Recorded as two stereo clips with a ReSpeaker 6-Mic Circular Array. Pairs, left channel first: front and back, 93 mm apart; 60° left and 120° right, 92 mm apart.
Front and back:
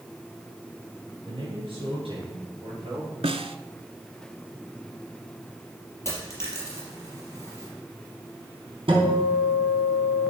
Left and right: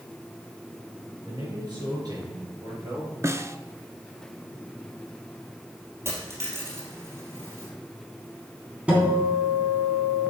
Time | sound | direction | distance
1.3 | a man speaking | 155° right | 5.5 m
3.2 | a snare drum | straight behind | 0.7 m
6.0 | a dropped coin | 60° right | 4 m
8.9 | a guitar | 165° left | 3 m